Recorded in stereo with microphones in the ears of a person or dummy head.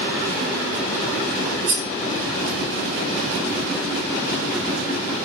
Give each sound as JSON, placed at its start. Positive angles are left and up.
{"t": 1.7, "sound": "cutlery clinking", "side_deg": -45, "distance_m": 0.9}